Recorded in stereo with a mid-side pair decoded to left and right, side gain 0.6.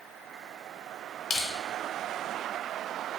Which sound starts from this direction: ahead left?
Crushing, at 1.3 s.